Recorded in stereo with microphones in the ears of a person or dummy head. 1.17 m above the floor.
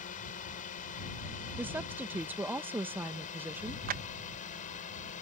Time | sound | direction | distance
0.0 | a drone | 40° left (ahead or behind) | ?
1.6 | a woman speaking | 10° right (ahead or behind) | ?
3.9 | a clap | 45° right (ahead or behind) | ?